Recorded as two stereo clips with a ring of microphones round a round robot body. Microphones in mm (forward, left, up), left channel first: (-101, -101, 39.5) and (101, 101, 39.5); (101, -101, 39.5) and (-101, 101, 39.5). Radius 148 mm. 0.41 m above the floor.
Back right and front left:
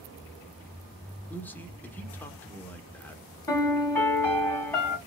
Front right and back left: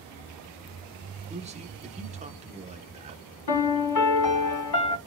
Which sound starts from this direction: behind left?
A man speaking, at 1.3 s.